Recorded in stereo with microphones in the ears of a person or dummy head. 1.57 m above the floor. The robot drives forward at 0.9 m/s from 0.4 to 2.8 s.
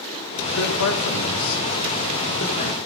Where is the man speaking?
70° left (ahead or behind), 1.8 m; by 2.8 s 50° left (ahead or behind), 2.5 m.